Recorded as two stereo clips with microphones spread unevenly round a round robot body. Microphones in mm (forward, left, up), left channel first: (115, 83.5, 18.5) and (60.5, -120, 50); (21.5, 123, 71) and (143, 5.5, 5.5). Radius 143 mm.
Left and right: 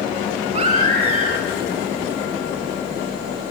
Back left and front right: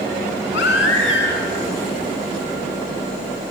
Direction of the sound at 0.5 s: 175° right.